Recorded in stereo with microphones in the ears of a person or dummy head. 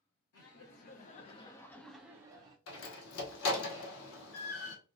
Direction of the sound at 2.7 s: 80° left.